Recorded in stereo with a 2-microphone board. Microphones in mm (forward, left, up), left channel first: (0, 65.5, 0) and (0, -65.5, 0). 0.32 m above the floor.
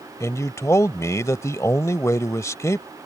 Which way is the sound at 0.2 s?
25° left (ahead or behind).